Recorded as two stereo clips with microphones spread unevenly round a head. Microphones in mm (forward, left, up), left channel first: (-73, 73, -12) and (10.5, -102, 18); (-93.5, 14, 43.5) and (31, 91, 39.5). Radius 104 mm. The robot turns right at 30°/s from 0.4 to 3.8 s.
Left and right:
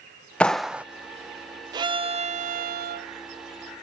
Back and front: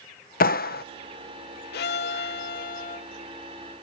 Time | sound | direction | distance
0.4 | a clap | 160° right | ?
1.7 | a violin | 130° right | ?